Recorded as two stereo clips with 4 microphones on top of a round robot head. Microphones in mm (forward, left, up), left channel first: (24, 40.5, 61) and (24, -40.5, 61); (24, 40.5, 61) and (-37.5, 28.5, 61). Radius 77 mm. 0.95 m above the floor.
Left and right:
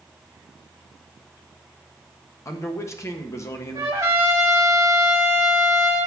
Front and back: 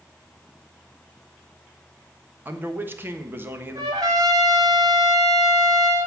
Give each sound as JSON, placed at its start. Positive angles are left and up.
{"t": 2.5, "sound": "a man speaking", "azimuth_deg": 140, "distance_m": 1.3}
{"t": 3.8, "sound": "a trumpet", "azimuth_deg": -150, "distance_m": 1.0}